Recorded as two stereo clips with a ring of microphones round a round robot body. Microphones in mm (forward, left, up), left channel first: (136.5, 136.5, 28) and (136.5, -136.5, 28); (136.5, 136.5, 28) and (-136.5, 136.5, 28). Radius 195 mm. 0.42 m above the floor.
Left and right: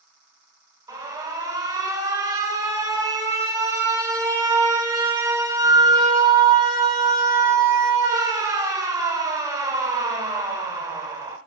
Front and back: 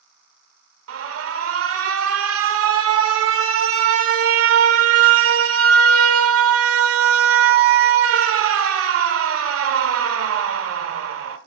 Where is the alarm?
165° right, 1.4 m.